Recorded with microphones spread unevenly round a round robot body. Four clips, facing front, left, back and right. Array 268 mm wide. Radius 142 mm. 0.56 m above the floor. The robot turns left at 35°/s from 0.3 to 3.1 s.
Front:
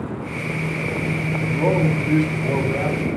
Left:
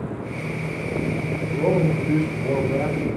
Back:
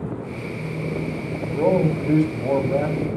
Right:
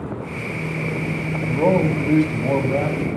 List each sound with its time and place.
1.5 s a man speaking: 80° right, 4.5 m; by 3.1 s 140° right, 4.5 m